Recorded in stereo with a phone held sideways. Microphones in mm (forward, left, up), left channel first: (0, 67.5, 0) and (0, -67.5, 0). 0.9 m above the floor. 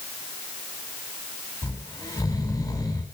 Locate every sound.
1.6 s snoring: 20° left (ahead or behind), 7 m